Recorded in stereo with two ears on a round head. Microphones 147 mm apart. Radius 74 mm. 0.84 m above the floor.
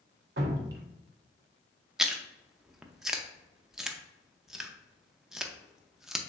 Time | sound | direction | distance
0.4 | dripping | 65° right (ahead or behind) | 0.8 m
2.0 | chewing | 5° right (ahead or behind) | 0.5 m